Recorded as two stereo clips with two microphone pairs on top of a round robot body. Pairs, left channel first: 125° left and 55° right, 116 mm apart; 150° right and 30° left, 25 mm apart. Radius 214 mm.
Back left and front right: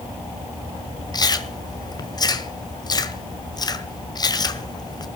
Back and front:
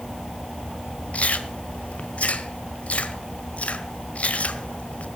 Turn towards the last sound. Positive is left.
turn(degrees=180)